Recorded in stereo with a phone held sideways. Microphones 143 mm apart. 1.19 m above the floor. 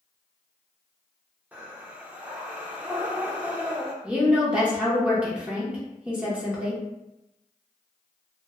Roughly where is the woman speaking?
Centre.